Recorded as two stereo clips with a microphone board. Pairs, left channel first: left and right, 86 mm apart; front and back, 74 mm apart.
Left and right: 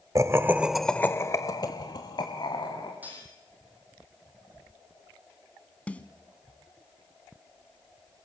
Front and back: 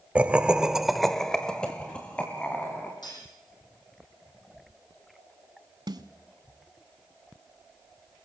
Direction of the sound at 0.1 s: 115° right.